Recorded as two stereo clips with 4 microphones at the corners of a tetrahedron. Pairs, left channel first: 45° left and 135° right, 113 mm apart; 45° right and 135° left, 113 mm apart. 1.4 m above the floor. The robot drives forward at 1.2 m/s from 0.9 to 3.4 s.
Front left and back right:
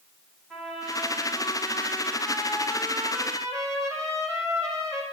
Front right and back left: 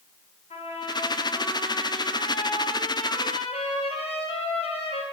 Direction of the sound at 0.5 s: 40° right.